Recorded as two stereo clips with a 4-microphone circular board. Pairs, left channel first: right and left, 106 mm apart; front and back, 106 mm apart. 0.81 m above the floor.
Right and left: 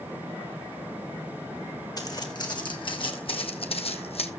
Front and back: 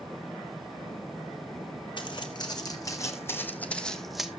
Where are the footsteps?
40° right, 3 m; by 4.3 s 95° right, 1.8 m.